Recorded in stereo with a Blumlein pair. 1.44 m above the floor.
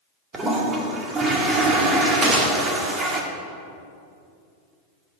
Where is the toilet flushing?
20° right, 2 m.